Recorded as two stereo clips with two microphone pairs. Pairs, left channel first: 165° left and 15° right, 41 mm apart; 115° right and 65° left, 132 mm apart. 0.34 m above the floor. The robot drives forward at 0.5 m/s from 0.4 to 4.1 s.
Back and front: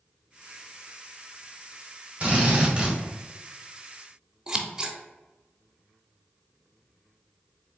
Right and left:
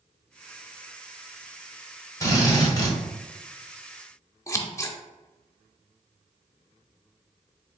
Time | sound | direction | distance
2.2 | a drill | 60° right | 1.8 m
4.5 | scissors | 80° right | 0.5 m